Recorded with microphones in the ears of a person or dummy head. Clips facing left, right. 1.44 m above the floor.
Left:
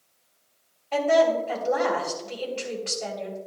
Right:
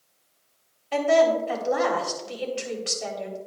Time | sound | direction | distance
0.9 | a woman speaking | 20° right (ahead or behind) | 3.5 m